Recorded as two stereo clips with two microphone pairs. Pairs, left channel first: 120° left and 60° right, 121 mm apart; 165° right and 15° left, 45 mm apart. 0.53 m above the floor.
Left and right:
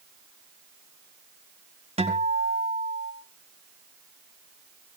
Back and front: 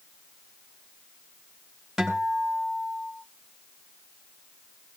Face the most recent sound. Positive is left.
turn(degrees=-70)